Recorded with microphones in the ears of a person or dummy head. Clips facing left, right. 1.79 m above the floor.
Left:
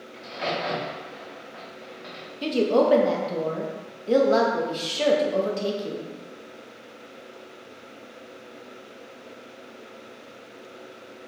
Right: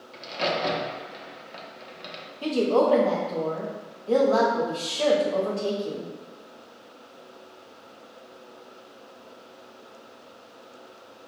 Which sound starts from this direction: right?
A crack, at 0.1 s.